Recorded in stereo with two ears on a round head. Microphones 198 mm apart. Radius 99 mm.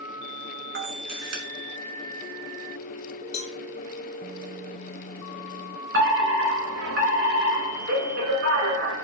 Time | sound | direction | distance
0.8 | a camera shutter | 55° right (ahead or behind) | 3 m
3.3 | a cowbell | 30° left (ahead or behind) | 1.5 m
5.9 | a fire alarm | 50° right (ahead or behind) | 3 m